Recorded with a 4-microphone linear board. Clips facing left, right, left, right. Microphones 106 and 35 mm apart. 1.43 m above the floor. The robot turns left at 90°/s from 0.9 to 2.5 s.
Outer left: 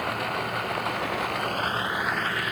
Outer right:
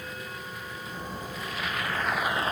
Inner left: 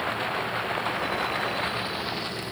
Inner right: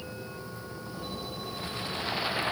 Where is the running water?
110° left; by 2.5 s 35° right.